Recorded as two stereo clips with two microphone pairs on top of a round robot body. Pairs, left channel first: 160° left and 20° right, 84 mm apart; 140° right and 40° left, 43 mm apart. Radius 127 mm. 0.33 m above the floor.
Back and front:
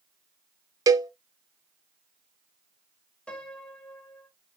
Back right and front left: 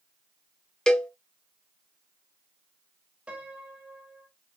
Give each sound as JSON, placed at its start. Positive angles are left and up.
{"t": 0.9, "sound": "a cowbell", "azimuth_deg": -65, "distance_m": 0.6}
{"t": 3.3, "sound": "a piano", "azimuth_deg": 90, "distance_m": 1.5}